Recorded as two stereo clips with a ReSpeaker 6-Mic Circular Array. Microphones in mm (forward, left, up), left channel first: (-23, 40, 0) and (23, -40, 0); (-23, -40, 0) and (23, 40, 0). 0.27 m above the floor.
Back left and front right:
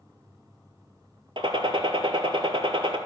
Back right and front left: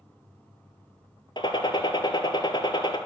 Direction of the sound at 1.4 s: 90° right.